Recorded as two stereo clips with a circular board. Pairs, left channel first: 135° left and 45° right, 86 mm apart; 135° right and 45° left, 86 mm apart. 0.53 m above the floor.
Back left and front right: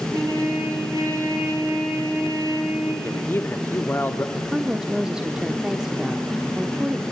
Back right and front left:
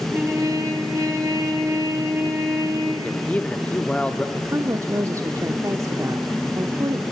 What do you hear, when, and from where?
0.1 s a trumpet: 5° right, 5 m
3.0 s a man speaking: 165° left, 0.9 m
4.3 s a woman speaking: 30° left, 0.9 m